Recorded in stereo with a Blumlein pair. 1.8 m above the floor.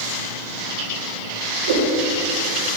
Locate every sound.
1.7 s a whoosh: 55° right, 3.5 m